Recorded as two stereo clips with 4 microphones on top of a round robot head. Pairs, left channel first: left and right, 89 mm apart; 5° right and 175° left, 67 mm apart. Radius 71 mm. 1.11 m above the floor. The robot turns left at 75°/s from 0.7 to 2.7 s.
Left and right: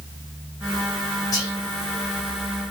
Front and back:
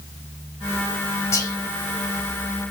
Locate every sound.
1.3 s whispering: 40° left, 1.0 m; by 1.6 s 25° left, 1.0 m